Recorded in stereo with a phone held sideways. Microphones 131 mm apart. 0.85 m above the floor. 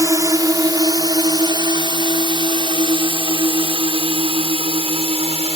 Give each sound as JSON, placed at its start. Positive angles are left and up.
{"t": 0.0, "sound": "a drone", "side_deg": -25}